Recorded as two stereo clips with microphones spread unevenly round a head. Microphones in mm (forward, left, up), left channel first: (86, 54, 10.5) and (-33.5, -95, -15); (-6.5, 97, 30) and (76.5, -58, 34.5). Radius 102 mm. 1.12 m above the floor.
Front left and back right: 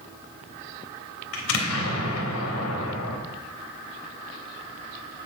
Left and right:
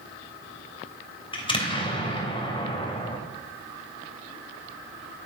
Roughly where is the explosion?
Ahead left.